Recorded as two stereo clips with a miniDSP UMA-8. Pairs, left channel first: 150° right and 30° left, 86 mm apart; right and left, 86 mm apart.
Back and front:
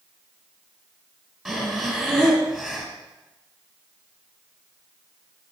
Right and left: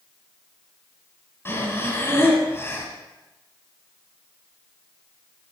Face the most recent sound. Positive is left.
turn(degrees=-65)